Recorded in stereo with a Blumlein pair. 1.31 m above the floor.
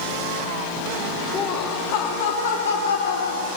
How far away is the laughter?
About 2.5 m.